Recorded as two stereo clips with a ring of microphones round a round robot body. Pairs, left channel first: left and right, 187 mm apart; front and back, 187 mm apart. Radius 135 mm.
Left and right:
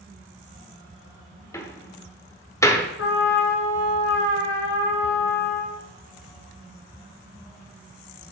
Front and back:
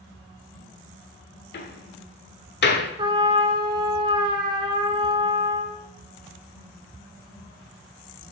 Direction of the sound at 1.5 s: 15° left.